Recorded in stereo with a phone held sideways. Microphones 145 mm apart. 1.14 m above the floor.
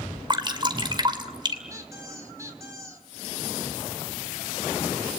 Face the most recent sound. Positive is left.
turn(degrees=-20)  # may be behind; listen again after turning